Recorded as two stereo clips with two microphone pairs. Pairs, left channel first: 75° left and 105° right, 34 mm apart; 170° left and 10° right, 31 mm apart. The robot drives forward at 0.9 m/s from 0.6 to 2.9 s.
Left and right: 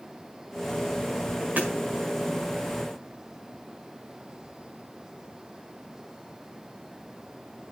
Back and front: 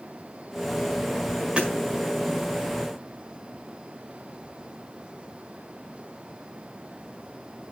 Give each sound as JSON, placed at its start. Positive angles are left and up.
{"t": 1.6, "sound": "hammering", "azimuth_deg": -65, "distance_m": 4.5}